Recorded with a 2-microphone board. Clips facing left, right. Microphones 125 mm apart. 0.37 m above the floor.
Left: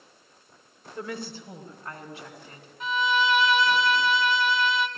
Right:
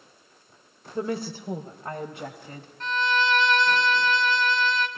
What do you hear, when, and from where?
0.9 s a woman speaking: 30° right (ahead or behind), 1.0 m; by 2.7 s 50° right (ahead or behind), 2 m
2.8 s a violin: 5° left (ahead or behind), 1.0 m